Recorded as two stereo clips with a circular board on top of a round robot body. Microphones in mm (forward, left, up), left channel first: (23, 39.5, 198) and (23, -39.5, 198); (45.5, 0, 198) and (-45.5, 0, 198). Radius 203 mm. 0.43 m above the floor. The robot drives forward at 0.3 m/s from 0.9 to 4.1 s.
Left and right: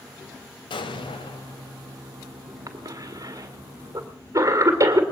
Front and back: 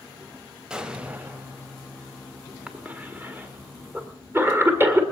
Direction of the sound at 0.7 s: 100° left.